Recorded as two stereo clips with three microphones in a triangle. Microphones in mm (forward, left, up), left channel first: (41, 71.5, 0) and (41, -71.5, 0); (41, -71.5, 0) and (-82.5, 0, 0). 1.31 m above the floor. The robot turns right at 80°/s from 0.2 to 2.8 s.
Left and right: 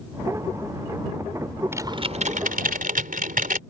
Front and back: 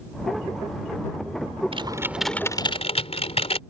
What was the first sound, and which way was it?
Typing on a keyboard, 160° right.